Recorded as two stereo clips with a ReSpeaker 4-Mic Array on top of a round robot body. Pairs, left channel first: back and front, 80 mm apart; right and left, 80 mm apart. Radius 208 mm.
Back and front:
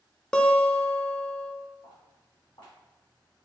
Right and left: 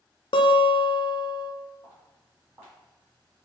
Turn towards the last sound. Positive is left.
turn(degrees=140)